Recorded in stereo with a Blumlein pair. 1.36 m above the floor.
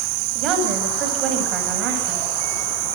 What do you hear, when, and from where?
0.3 s a woman speaking: 30° right, 9 m